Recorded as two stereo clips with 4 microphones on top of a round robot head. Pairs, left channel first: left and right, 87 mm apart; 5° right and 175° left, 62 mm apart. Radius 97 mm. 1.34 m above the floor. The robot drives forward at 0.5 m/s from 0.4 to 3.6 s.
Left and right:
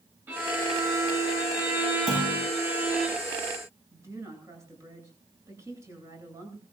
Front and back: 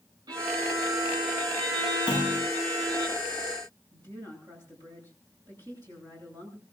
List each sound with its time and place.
0.3 s a violin: 160° right, 9 m
2.1 s a clunk: 80° right, 7.5 m
3.9 s a woman speaking: 145° right, 9 m